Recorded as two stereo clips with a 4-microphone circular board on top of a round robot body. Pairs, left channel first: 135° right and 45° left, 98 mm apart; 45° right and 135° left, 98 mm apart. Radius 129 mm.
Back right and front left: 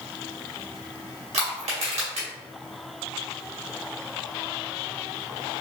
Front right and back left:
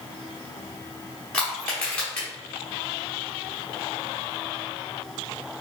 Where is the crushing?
35° left, 0.9 m.